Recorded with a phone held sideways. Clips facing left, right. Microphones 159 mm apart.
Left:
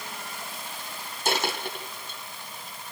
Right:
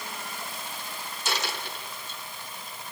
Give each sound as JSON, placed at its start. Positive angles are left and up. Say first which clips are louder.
{"t": 1.2, "sound": "a dropped coin", "louder": "left 5 dB", "side_deg": 50, "distance_m": 2.5}